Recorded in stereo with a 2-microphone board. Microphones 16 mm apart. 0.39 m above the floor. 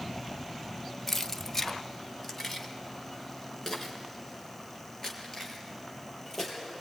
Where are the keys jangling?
20° left (ahead or behind), 0.7 m.